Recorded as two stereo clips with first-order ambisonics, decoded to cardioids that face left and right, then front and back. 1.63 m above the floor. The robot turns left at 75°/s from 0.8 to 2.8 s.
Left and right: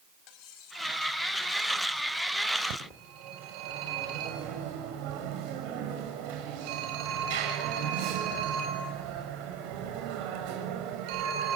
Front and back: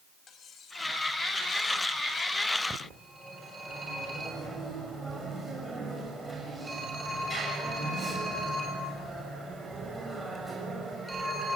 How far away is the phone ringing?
About 6.5 m.